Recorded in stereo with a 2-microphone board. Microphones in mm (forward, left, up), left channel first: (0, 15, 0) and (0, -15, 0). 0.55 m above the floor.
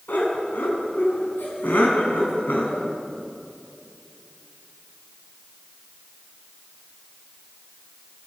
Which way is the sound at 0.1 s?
80° left.